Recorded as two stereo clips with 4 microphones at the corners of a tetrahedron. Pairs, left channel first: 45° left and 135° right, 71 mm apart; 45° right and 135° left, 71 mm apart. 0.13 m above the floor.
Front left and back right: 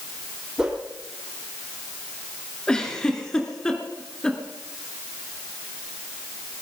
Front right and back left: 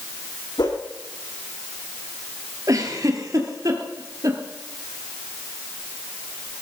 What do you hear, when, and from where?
0.6 s a whoosh: 55° right, 4.5 m
2.7 s a giggle: 120° left, 3 m